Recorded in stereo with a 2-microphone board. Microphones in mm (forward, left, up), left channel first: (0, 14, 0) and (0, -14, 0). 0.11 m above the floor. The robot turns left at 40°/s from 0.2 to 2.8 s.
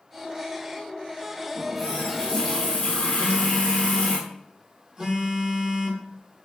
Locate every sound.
1.6 s a running tap: 170° left, 1.4 m; by 4.2 s 120° left, 1.4 m
3.2 s a phone buzzing: 15° right (ahead or behind), 0.7 m